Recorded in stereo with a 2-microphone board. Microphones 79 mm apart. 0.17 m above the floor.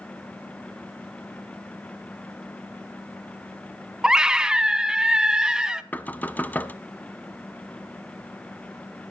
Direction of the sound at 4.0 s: 10° right (ahead or behind).